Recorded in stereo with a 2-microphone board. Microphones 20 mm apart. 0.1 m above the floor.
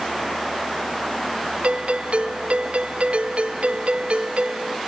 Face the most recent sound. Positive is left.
turn(degrees=-70)  # may be behind; listen again after turning